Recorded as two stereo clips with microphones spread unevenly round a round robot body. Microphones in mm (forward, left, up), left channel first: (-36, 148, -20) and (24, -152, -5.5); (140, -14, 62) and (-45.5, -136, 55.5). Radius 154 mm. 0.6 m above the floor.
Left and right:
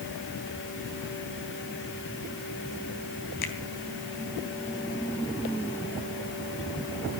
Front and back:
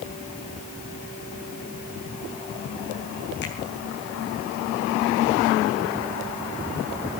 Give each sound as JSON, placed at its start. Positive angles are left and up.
{"t": 3.4, "sound": "a finger snap", "azimuth_deg": 85, "distance_m": 3.5}